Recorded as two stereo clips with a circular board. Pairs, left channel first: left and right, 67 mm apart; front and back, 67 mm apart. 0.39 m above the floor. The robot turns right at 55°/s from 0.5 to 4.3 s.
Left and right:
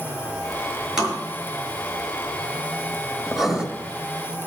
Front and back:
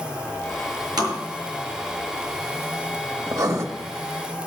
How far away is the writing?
About 1.4 m.